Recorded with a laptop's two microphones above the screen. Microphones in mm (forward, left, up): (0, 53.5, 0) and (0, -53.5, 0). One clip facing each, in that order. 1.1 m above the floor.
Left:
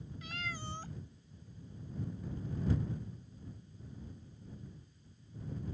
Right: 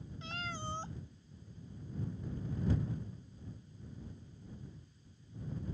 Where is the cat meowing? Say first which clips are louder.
Right 2 dB; 30° right (ahead or behind).